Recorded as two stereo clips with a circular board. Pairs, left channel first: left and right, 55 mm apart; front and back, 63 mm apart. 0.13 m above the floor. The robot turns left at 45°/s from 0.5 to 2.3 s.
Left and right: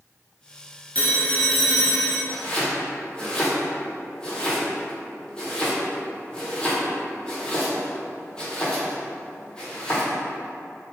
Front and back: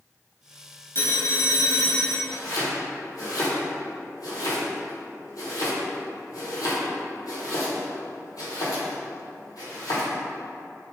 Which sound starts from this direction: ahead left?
A phone ringing, at 0.9 s.